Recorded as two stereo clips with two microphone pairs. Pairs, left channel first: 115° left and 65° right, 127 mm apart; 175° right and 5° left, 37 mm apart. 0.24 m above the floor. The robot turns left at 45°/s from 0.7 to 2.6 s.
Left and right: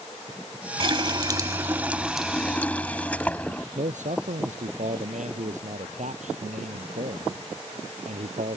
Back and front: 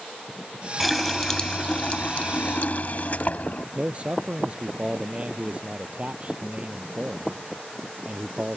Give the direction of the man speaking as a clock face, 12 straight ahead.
2 o'clock.